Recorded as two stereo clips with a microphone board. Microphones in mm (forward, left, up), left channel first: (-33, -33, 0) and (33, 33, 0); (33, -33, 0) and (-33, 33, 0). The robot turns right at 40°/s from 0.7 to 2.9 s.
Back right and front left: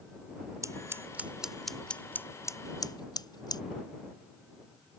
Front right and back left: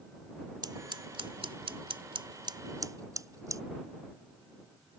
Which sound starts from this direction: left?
Scissors, at 0.6 s.